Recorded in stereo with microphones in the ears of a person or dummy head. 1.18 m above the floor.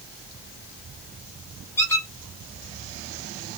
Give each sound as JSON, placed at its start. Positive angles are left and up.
{"t": 1.8, "sound": "a squeak", "side_deg": 10, "distance_m": 1.1}